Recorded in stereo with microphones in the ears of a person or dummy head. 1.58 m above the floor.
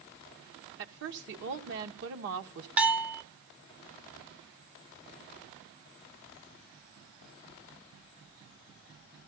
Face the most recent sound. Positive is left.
turn(degrees=-10)  # may be behind; listen again after turning